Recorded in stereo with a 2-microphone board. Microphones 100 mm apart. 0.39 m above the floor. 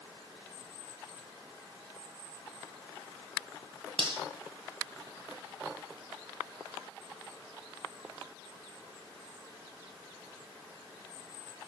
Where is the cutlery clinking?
60° right (ahead or behind), 1.3 m.